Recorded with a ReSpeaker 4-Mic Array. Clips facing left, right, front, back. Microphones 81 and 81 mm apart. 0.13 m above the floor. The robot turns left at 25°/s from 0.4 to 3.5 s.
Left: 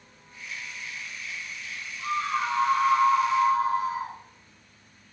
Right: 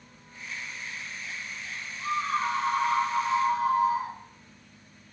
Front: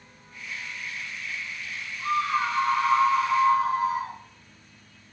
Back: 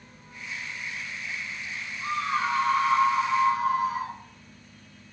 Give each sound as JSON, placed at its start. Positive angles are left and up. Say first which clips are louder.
{"t": 2.0, "sound": "a scream", "louder": "even, front 3 dB", "azimuth_deg": 150, "distance_m": 1.8}